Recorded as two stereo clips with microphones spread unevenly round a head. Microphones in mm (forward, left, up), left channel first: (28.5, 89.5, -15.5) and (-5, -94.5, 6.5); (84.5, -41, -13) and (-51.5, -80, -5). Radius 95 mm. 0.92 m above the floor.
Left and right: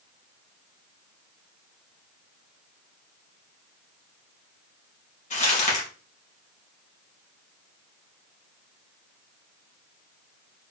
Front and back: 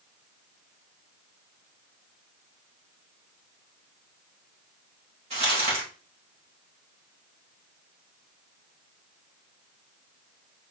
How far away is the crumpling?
About 1.9 m.